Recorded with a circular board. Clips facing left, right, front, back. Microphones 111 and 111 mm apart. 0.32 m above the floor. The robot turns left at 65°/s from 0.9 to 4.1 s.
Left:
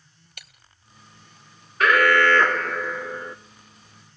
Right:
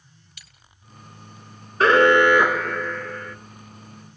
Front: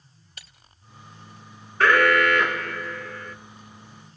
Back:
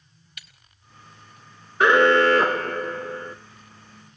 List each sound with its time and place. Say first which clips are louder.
0.4 s breaking glass: left 6 dB, even; 55° left, 1.9 m
1.8 s an alarm: right 4 dB, back 3 dB; 120° right, 1.0 m; by 3.4 s 135° left, 1.0 m